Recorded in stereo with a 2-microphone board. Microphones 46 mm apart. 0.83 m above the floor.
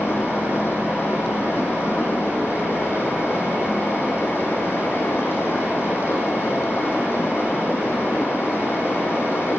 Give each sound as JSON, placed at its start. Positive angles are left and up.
{"t": 0.0, "sound": "running water", "side_deg": 70, "distance_m": 7.0}